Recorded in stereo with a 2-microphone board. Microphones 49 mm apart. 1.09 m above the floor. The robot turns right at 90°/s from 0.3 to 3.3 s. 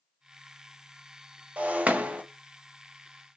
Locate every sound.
1.6 s breaking glass: 25° right (ahead or behind), 0.5 m